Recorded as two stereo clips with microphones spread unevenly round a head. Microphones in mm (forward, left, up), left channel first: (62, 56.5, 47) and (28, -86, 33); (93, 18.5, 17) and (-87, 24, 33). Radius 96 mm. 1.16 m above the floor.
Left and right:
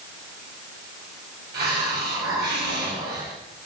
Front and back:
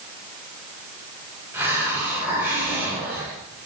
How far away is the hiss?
About 7 m.